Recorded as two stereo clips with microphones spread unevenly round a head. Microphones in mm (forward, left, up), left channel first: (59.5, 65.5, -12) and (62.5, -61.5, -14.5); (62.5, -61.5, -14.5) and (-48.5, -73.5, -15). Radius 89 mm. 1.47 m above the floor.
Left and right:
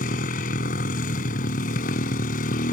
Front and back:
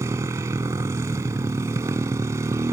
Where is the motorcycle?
115° left.